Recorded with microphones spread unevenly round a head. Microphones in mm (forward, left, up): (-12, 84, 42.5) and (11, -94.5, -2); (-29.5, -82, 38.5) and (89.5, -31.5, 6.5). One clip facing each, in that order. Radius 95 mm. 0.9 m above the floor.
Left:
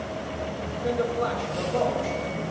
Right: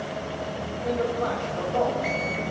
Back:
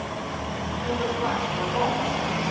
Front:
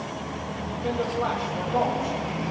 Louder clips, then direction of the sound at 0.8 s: Even, front 1 dB; 50° left.